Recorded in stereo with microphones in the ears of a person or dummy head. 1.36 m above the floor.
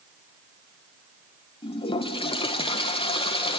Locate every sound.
1.6 s a toilet flushing: 30° left (ahead or behind), 1.4 m